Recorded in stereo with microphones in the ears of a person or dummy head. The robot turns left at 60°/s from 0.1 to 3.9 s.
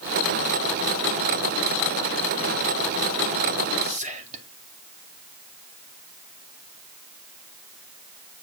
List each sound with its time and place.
3.8 s whispering: 35° right (ahead or behind), 2 m; by 4.5 s 40° right (ahead or behind), 2 m